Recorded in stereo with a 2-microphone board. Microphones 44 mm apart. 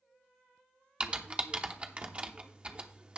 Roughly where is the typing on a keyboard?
Right.